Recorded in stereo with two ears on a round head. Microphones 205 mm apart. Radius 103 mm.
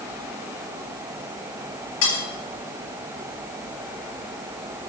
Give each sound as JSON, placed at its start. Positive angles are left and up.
{"t": 2.0, "sound": "cutlery clinking", "side_deg": 75, "distance_m": 6.0}